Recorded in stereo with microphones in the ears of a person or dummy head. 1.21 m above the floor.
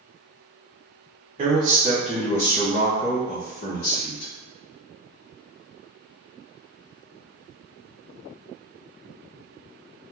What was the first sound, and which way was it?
A man speaking, 30° right (ahead or behind).